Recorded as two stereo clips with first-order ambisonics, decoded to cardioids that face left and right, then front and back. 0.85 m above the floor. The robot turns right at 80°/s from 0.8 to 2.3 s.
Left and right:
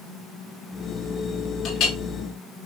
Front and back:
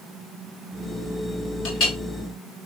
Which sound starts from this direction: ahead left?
A clink, at 1.6 s.